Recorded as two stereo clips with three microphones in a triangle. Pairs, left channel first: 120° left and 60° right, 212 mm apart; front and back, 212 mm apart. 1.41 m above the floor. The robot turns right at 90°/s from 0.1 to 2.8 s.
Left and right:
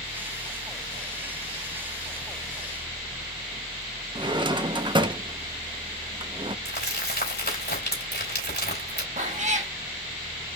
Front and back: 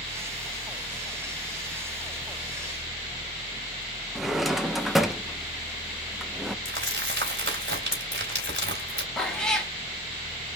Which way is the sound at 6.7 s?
155° left.